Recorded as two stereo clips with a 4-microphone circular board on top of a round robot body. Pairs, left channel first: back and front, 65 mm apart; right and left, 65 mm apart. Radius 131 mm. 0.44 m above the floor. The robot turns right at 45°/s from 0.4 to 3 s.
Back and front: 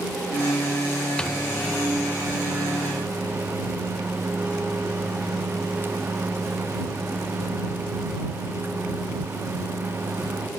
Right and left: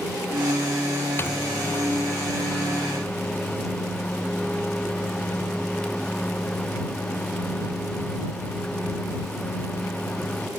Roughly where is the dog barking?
I don't hear a dog barking.